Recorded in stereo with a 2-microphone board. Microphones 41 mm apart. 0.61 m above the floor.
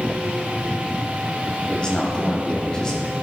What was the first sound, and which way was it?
A man speaking, 25° left (ahead or behind).